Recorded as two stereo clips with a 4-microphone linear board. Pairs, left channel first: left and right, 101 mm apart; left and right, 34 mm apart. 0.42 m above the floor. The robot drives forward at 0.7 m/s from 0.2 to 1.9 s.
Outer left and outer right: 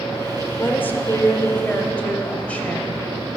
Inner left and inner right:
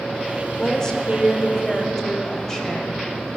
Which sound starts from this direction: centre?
A woman speaking, at 0.6 s.